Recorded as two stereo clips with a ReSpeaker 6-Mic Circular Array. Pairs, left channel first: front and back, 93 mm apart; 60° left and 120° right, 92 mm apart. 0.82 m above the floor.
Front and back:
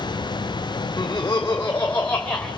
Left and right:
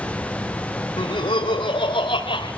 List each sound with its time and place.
1.0 s laughter: 45° left, 2.5 m; by 2.5 s 75° left, 3 m